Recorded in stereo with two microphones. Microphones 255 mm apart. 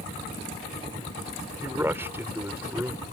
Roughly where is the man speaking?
Centre.